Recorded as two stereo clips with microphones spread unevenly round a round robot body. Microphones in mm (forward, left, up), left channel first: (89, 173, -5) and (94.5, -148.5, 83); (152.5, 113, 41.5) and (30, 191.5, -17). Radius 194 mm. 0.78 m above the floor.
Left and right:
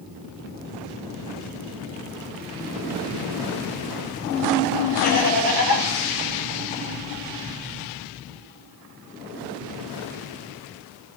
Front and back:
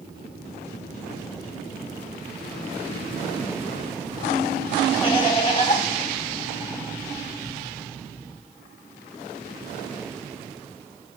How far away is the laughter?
About 6 m.